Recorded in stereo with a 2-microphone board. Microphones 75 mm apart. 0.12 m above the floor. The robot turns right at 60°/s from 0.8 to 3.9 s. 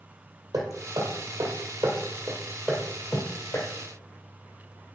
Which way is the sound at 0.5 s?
55° right (ahead or behind).